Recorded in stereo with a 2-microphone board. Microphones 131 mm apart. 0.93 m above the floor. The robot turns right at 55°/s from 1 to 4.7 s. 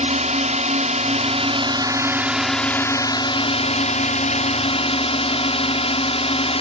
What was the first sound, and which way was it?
A drone, 80° right.